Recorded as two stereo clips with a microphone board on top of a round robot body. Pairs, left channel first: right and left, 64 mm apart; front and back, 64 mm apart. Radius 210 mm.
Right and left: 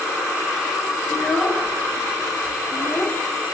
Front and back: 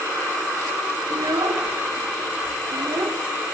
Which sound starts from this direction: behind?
A child speaking, at 1.1 s.